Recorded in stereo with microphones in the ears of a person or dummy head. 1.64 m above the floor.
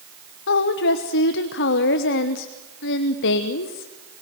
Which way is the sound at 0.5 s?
60° left (ahead or behind).